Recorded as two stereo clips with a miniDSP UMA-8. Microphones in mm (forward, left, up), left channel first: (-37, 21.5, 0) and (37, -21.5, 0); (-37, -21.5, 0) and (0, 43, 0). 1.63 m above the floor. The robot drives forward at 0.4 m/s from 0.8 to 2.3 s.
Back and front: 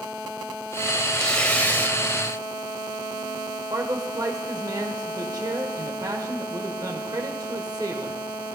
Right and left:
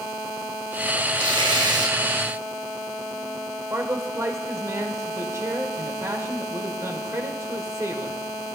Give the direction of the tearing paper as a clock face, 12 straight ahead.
10 o'clock.